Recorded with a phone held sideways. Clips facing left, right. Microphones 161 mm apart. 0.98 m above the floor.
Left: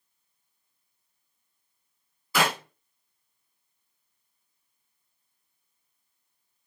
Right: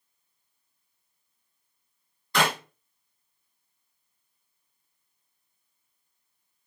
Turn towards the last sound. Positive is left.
turn(degrees=5)  # may be behind; listen again after turning